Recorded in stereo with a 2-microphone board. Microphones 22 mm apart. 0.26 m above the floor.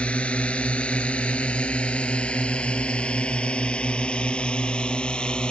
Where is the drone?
75° left (ahead or behind); by 5.5 s 50° left (ahead or behind).